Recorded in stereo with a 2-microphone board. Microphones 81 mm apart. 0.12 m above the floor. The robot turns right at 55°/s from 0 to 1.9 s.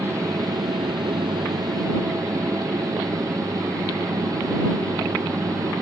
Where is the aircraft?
150° right; by 5.8 s 45° right.